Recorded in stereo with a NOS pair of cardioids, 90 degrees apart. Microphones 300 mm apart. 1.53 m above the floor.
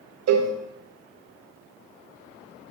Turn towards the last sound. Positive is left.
turn(degrees=-60)